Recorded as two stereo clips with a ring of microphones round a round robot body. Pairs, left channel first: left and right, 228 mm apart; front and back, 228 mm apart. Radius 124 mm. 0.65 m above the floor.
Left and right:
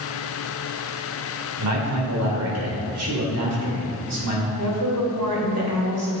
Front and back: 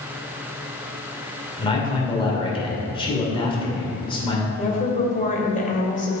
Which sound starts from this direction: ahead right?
A woman speaking, at 4.6 s.